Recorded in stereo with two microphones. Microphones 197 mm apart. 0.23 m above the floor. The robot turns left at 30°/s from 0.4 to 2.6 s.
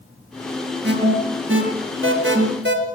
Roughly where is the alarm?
Right.